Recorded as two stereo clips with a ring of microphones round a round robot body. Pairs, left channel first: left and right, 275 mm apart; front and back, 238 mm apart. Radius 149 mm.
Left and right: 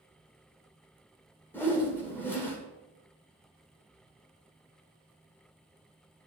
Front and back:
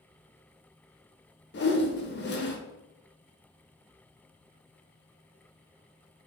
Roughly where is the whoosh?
Ahead.